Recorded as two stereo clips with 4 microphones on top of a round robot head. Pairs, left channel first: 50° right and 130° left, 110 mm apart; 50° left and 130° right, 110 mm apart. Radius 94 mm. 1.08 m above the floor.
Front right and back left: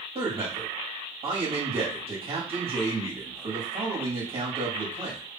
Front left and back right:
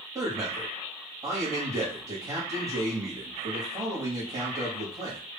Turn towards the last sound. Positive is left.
turn(degrees=175)